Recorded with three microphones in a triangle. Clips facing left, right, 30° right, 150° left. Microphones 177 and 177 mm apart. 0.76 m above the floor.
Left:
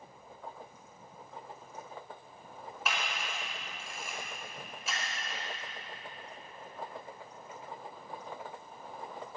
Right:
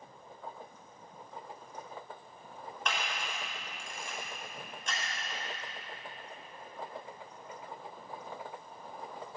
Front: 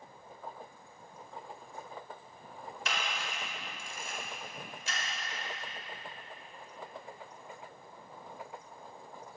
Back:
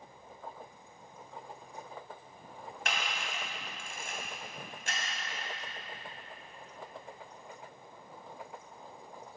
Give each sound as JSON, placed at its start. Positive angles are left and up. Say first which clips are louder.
{"t": 2.9, "sound": "a camera shutter", "louder": "even, even", "azimuth_deg": 175, "distance_m": 4.0}